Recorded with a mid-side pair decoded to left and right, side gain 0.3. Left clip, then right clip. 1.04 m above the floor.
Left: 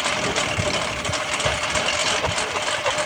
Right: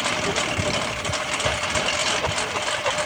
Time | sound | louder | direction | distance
0.0 | a lawn mower | left 1 dB | 20° left | ?